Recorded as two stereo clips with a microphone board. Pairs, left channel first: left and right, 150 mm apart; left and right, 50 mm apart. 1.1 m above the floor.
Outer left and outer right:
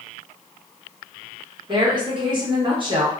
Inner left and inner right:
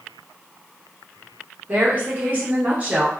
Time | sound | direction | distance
1.7 | a woman speaking | 30° right (ahead or behind) | 1.0 m